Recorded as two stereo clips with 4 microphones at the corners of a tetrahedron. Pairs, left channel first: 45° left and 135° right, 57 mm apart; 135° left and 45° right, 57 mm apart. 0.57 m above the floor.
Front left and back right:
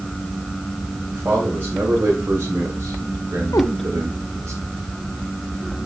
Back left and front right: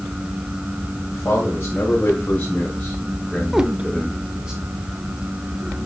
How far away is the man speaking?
About 3 m.